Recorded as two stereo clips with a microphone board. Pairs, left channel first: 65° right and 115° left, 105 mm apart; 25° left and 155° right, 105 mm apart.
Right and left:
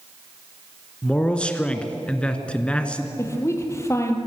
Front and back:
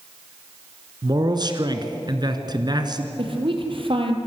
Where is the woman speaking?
130° right, 4 m.